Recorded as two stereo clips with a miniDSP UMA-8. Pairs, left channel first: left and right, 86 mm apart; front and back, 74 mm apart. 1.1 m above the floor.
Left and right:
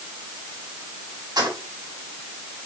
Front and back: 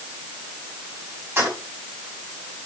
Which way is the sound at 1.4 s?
120° right.